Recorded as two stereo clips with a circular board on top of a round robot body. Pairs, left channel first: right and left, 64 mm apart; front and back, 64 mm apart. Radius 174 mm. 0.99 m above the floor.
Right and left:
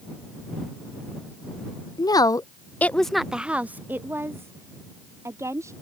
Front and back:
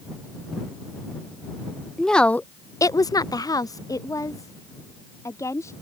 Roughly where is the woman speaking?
Right.